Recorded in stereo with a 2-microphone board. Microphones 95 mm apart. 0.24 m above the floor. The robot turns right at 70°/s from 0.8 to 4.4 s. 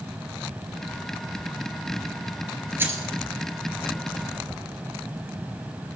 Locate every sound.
2.8 s keys jangling: 20° right (ahead or behind), 2.5 m; by 3.1 s 40° right (ahead or behind), 2.5 m